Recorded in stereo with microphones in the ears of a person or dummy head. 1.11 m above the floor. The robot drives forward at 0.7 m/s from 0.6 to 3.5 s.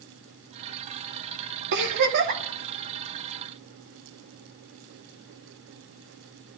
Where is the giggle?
55° right (ahead or behind), 1.5 m; by 2.4 s 45° right (ahead or behind), 1.8 m.